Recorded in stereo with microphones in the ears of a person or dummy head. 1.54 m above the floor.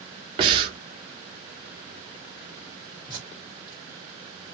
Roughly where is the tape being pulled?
Right.